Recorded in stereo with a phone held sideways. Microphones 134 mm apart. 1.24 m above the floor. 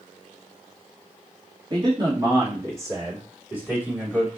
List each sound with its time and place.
1.7 s a man speaking: 35° right (ahead or behind), 2.5 m; by 4.3 s 10° right (ahead or behind), 3.5 m